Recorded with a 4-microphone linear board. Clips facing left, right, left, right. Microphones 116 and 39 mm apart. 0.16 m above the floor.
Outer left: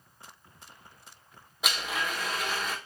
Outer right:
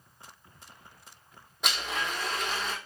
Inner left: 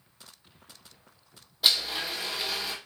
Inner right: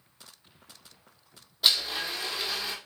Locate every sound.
1.6 s a blender: 5° left (ahead or behind), 1.7 m